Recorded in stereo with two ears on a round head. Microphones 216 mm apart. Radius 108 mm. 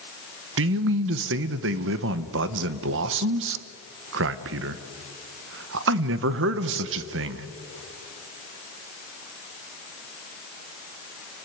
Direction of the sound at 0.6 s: 55° right (ahead or behind).